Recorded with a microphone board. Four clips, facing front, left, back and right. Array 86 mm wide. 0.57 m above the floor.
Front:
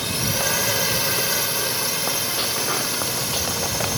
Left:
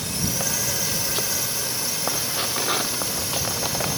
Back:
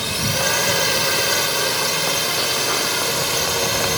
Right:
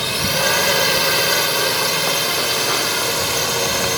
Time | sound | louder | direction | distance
0.0 | a drone | right 9 dB, back 3 dB | 100° right | ?